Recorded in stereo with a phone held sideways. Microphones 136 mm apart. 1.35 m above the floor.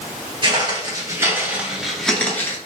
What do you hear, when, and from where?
0.4 s footsteps: 40° right (ahead or behind), 1.7 m; by 2.6 s 20° left (ahead or behind), 1.3 m